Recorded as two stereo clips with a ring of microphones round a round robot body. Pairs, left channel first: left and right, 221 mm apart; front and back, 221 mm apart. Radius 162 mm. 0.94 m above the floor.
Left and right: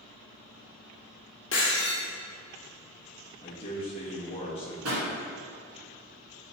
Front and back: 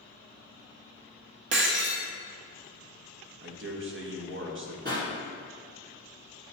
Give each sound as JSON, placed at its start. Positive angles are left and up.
{"t": 1.5, "sound": "breaking glass", "azimuth_deg": 145, "distance_m": 1.2}
{"t": 3.4, "sound": "a man speaking", "azimuth_deg": 160, "distance_m": 1.3}
{"t": 4.8, "sound": "a pop", "azimuth_deg": -120, "distance_m": 1.8}